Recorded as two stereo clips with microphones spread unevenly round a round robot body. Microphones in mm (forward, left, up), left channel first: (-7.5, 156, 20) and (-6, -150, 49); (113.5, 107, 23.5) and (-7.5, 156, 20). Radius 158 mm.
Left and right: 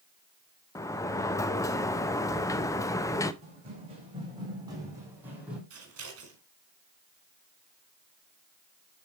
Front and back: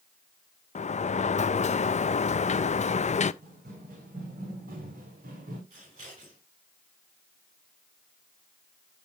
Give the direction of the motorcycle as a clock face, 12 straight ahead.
I don't hear a motorcycle.